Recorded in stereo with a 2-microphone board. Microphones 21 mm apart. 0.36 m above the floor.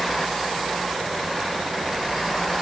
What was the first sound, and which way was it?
Only background noise.